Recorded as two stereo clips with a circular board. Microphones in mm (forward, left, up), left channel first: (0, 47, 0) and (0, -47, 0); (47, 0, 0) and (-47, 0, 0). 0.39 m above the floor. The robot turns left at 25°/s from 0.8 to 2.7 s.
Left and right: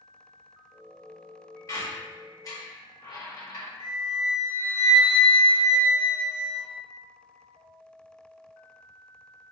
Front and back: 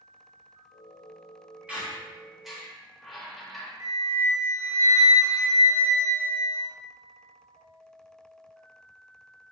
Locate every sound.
1.7 s a squeak: 110° left, 0.9 m; by 3.7 s 85° left, 0.9 m
3.8 s a flute: 125° left, 0.8 m